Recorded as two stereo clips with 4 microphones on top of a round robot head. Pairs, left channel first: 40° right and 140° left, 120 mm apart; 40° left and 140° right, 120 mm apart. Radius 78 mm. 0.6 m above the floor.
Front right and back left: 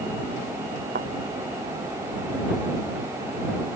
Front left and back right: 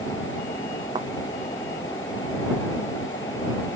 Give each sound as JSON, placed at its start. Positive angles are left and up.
{"t": 0.9, "sound": "a thud", "azimuth_deg": 160}